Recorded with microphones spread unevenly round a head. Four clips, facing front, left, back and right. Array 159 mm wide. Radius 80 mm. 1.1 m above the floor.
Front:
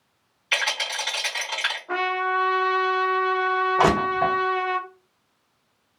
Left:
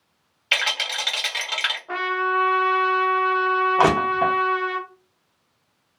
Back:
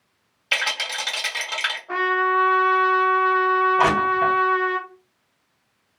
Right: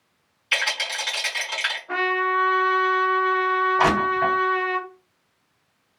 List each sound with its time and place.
0.5 s a rattle: 135° left, 1.5 m
1.9 s a trumpet: 50° left, 1.1 m
3.8 s crushing: 65° left, 1.2 m